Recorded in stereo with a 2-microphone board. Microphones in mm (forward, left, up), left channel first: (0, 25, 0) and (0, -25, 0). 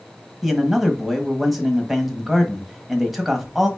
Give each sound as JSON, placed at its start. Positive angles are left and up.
{"t": 0.4, "sound": "a man speaking", "side_deg": -5, "distance_m": 1.0}